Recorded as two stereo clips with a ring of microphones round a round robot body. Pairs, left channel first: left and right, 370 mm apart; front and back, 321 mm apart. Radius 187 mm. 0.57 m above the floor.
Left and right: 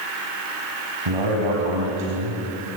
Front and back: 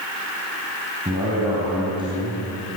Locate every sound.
1.1 s a man speaking: 105° right, 4.5 m